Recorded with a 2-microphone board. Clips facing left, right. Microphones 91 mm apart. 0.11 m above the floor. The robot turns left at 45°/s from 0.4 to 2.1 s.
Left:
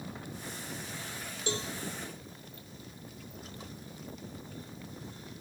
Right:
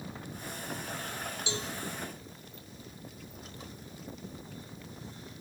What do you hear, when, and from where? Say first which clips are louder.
1.5 s a cowbell: left 5 dB; 50° left (ahead or behind), 0.5 m; by 1.7 s 40° left (ahead or behind), 0.5 m